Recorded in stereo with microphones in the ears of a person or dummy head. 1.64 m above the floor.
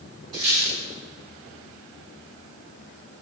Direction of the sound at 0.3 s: 30° right (ahead or behind).